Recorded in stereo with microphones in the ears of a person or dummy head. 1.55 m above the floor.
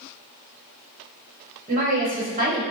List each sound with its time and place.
1.7 s a woman speaking: 30° right (ahead or behind), 1.0 m